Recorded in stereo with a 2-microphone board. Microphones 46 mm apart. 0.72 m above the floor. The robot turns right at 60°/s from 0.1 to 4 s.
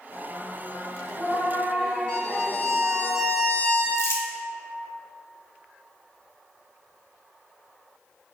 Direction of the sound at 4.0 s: 75° left (ahead or behind).